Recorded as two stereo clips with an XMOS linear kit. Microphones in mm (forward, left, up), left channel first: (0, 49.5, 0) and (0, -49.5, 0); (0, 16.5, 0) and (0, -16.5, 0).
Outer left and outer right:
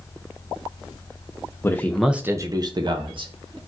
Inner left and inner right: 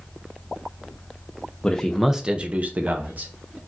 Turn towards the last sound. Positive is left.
turn(degrees=-55)  # may be behind; listen again after turning